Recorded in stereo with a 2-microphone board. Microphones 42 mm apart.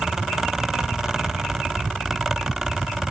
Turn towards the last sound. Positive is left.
No sound to turn to.